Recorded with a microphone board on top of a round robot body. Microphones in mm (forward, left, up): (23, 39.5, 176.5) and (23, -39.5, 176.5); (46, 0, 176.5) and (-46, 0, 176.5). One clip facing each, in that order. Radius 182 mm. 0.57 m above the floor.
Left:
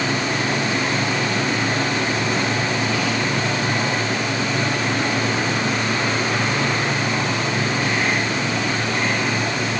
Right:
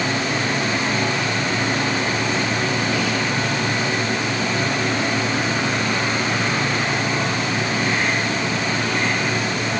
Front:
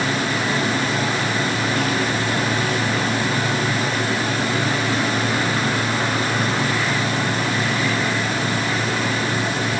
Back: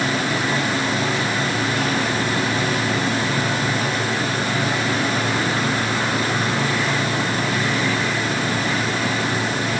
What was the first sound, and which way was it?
Only background noise.